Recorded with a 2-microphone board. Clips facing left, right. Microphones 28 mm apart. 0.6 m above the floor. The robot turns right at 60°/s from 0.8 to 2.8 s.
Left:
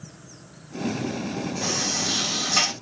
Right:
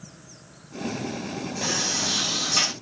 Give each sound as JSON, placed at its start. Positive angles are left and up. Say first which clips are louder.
{"t": 1.6, "sound": "a sliding door", "louder": "right 1 dB", "azimuth_deg": -40, "distance_m": 3.0}